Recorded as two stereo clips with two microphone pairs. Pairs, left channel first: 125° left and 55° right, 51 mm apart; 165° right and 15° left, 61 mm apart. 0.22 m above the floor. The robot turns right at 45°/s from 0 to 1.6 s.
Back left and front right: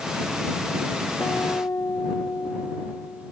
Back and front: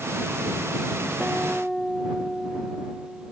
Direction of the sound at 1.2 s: 85° left.